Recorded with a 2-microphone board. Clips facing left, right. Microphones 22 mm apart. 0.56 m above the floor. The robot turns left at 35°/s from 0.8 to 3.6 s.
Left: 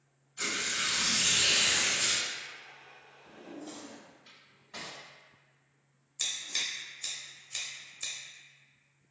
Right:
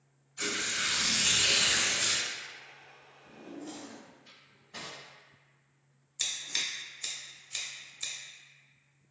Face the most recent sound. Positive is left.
turn(degrees=-5)  # may be behind; listen again after turning